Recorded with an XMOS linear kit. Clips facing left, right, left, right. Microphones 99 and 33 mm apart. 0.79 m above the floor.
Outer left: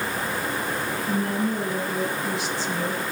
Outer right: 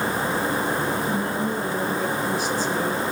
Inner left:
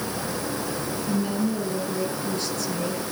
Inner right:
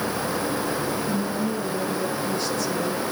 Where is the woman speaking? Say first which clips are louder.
Even, even; 65° left (ahead or behind), 9.5 m.